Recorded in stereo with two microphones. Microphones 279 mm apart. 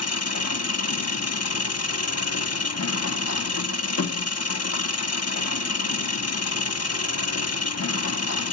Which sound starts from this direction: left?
An engine running, at 0.0 s.